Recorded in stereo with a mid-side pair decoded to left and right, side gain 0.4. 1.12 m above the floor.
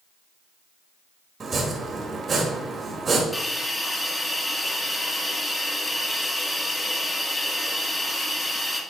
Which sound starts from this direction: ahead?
A hiss, at 3.3 s.